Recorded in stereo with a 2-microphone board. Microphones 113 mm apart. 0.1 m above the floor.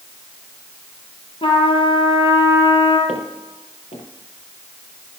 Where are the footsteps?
85° left, 5.5 m.